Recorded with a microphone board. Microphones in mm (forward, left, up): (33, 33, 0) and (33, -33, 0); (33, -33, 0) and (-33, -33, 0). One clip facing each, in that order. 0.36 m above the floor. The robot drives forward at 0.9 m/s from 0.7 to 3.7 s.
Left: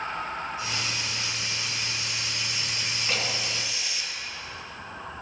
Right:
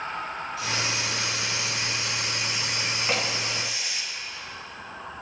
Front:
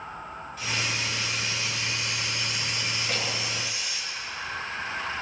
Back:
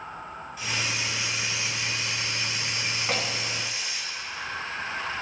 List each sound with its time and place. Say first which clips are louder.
0.6 s a hiss: right 3 dB, even; 95° right, 2.5 m; by 4.0 s 140° right, 4 m
3.0 s a door slam: right 2 dB, back 3 dB; 150° right, 3 m; by 3.3 s 155° right, 3 m